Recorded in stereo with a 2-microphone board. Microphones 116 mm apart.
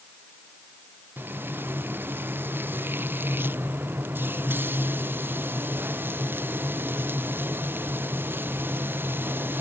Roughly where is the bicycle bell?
I don't hear a bicycle bell.